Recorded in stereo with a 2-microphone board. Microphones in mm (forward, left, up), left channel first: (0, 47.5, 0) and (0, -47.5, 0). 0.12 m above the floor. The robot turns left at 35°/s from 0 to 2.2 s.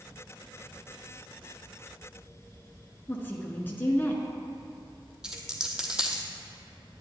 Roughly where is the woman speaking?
Left.